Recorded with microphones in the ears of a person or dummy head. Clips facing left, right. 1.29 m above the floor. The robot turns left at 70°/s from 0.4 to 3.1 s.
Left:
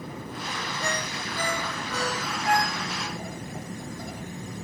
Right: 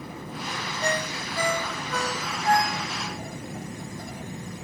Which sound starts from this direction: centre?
A ringtone, at 0.8 s.